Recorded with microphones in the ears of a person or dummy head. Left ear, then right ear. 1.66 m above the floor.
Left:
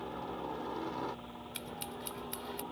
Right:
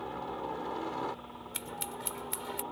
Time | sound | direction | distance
0.0 | a helicopter | 15° right (ahead or behind) | ?
1.5 | scissors | 25° right (ahead or behind) | ?